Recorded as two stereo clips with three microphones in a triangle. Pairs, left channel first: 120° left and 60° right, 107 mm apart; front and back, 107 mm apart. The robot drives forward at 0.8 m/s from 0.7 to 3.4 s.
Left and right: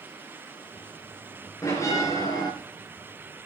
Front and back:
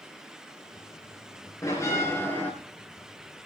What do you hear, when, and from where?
1.6 s a bell: 60° left, 3.5 m; by 2.5 s 70° left, 3.5 m